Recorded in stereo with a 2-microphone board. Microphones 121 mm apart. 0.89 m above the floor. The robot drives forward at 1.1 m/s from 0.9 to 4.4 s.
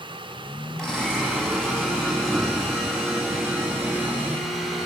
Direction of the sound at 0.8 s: 5° left (ahead or behind).